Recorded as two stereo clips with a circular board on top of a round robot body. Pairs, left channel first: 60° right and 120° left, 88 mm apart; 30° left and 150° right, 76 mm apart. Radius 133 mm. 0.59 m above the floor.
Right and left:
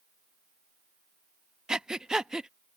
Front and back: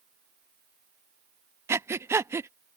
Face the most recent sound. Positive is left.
turn(degrees=-160)